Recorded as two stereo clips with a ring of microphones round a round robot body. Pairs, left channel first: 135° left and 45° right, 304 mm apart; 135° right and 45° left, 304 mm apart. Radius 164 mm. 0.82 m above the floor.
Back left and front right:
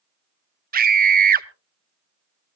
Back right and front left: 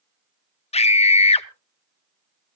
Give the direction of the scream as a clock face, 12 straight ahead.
3 o'clock.